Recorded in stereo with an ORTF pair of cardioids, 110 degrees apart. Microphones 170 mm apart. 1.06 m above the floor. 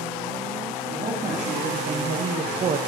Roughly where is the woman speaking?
Ahead right.